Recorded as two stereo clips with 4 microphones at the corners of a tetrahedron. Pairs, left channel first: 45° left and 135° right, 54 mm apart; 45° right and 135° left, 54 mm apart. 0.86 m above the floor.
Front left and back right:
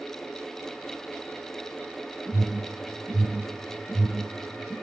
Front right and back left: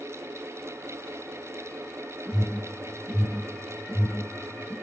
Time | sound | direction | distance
2.2 | an alarm | 5° right | 5.5 m